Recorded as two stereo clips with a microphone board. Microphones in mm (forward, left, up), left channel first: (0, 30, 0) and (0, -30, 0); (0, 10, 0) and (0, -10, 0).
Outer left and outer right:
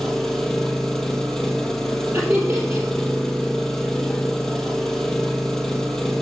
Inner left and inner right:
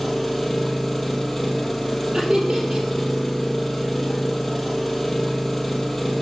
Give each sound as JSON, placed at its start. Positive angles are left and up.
{"t": 0.0, "sound": "an engine running", "side_deg": 5, "distance_m": 1.3}
{"t": 2.1, "sound": "laughter", "side_deg": -30, "distance_m": 3.5}